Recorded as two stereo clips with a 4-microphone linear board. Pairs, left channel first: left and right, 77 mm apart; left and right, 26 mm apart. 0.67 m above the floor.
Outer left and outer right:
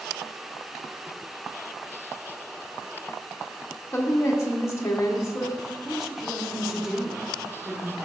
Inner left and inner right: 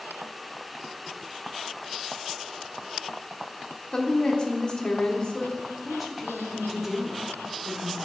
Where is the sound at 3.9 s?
40° left (ahead or behind), 1.3 m.